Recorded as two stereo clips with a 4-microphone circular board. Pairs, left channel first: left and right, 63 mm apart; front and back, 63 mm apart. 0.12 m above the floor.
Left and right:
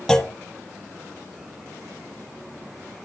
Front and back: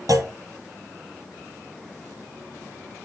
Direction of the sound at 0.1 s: 170° left.